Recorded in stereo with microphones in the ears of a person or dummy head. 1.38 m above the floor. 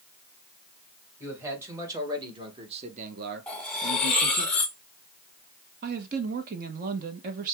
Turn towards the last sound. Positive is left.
turn(degrees=-50)  # may be behind; listen again after turning